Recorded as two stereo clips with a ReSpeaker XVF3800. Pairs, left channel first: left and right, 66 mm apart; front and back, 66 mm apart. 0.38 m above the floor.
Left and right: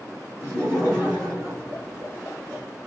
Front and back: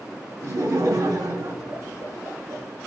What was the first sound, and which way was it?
Laughter, 150° right.